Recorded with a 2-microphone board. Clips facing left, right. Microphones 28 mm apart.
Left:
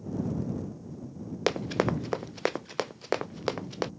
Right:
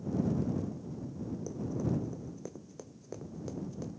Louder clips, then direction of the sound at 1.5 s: Left 9 dB; 75° left (ahead or behind).